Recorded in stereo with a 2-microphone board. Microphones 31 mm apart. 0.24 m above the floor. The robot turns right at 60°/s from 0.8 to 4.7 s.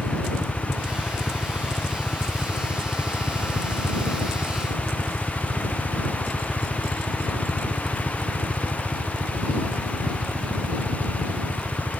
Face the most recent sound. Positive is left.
turn(degrees=-65)  # may be behind; listen again after turning